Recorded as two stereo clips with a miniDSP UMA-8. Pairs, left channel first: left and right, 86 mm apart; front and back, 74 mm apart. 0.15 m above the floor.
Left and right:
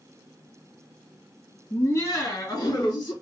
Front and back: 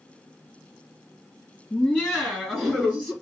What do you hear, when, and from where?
1.7 s laughter: 85° left, 1.8 m; by 3.1 s 110° left, 3 m